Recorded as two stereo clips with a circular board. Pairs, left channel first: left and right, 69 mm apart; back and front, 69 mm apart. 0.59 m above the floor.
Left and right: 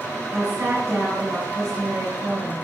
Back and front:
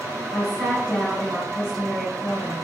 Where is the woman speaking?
95° right, 3.5 m.